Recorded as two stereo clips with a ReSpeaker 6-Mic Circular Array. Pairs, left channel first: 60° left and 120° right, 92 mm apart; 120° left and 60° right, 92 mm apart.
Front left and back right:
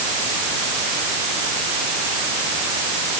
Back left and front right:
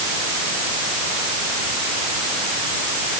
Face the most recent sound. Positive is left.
No sound to turn to.